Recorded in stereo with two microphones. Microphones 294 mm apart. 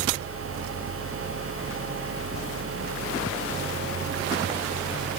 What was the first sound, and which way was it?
Only background noise.